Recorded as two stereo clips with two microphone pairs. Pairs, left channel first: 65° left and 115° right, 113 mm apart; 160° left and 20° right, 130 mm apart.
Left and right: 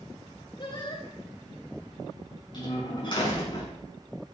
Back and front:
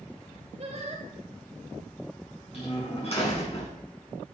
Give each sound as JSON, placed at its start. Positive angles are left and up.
{"t": 0.6, "sound": "singing", "azimuth_deg": 20, "distance_m": 3.0}
{"t": 2.5, "sound": "a door slam", "azimuth_deg": 115, "distance_m": 5.5}